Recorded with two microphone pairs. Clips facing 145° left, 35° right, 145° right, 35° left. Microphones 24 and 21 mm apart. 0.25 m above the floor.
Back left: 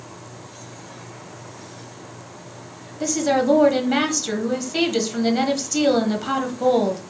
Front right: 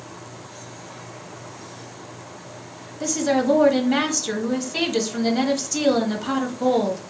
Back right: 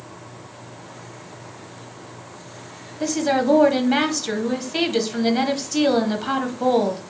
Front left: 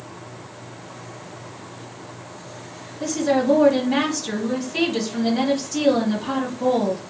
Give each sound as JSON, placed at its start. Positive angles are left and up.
{"t": 3.0, "sound": "a woman speaking", "azimuth_deg": -160, "distance_m": 1.0}